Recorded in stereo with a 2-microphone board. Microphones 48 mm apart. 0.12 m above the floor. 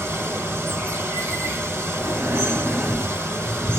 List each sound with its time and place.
0.0 s running water: 45° right (ahead or behind), 4 m
2.0 s breathing: 35° right (ahead or behind), 3 m